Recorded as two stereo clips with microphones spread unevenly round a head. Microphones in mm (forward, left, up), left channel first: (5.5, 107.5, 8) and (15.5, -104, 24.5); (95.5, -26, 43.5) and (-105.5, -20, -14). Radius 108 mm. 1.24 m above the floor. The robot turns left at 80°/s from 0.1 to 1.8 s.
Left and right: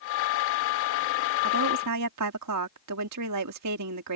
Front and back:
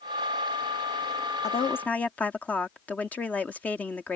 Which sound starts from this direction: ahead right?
A woman speaking, at 1.4 s.